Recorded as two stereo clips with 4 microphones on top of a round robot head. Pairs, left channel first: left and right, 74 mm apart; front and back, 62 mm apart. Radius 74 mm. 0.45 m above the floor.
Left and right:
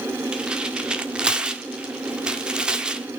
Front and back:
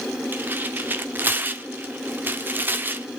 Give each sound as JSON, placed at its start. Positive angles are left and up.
{"t": 0.3, "sound": "tearing paper", "azimuth_deg": -160, "distance_m": 1.6}